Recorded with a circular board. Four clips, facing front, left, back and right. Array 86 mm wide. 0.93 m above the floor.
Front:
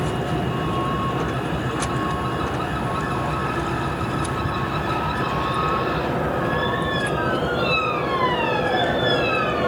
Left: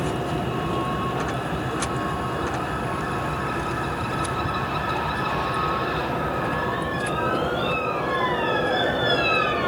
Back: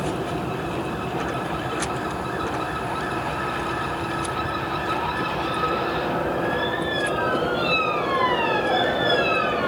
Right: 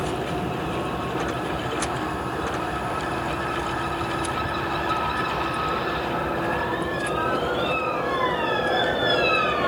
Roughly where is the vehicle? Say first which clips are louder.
Left 1 dB, front 2 dB; ahead left.